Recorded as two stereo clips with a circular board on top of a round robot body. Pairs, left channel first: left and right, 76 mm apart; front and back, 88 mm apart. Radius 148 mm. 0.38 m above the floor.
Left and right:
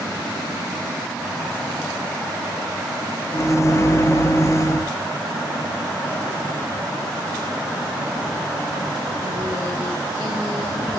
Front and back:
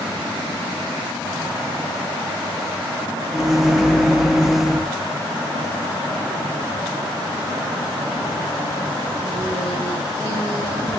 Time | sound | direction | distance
3.3 | a microwave | 95° left | 0.8 m